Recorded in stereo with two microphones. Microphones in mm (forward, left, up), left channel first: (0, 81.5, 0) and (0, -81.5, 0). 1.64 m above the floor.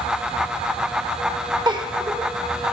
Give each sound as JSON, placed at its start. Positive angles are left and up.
{"t": 1.7, "sound": "a giggle", "side_deg": -25, "distance_m": 0.8}